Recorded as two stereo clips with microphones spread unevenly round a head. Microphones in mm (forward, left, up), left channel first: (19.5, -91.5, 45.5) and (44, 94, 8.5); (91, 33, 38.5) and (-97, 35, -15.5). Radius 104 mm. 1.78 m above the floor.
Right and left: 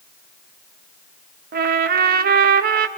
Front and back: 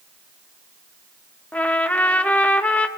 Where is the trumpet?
55° left, 0.6 m.